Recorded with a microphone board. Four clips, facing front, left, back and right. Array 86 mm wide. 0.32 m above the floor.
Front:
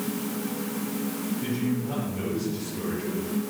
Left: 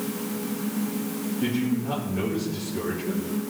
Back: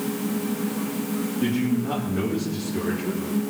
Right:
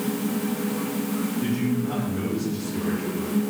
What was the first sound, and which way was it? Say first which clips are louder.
A man speaking: left 2 dB, back 5 dB; 170° left.